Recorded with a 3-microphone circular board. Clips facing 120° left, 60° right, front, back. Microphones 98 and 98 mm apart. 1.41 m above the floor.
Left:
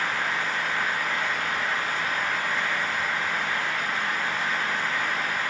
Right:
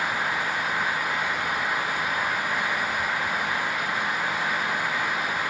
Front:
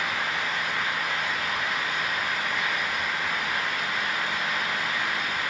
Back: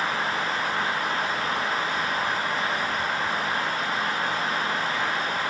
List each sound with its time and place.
Only background noise.